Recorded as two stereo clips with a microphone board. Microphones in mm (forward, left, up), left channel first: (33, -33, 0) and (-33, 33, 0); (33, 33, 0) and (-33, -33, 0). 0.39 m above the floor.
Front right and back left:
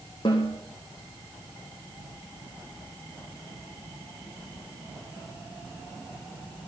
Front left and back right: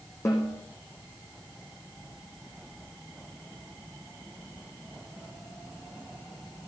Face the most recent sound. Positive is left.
turn(degrees=-10)